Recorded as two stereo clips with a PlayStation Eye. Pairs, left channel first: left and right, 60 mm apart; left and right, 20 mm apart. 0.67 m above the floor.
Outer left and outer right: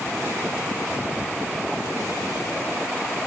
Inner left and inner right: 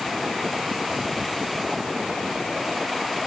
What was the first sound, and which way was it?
Only background noise.